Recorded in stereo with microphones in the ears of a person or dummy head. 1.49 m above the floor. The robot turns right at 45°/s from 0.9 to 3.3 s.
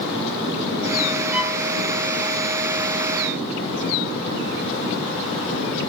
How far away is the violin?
About 2.5 m.